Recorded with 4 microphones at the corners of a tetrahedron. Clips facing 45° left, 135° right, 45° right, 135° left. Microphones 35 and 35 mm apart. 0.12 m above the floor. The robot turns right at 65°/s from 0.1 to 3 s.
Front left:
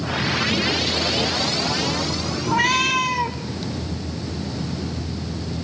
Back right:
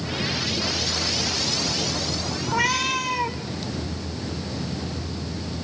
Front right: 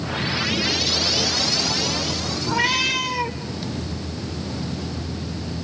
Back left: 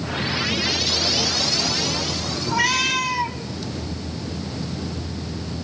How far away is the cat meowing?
About 3.5 m.